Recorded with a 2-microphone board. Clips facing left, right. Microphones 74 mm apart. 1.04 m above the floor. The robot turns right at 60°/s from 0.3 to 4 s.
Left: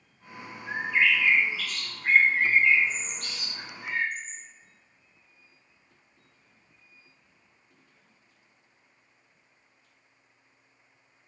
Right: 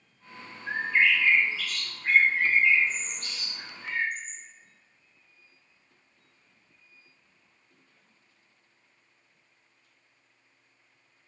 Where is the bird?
55° right (ahead or behind), 1.0 m; by 4.4 s 35° left (ahead or behind), 1.0 m.